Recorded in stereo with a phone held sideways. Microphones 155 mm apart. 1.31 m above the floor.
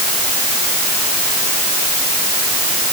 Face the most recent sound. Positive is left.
No sound to turn to.